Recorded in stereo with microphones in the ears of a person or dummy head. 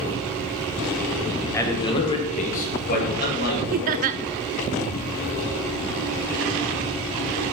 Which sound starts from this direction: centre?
A man speaking, at 1.5 s.